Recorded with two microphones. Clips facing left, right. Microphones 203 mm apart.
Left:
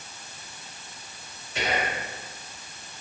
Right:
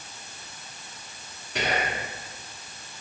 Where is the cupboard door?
No cupboard door in this recording.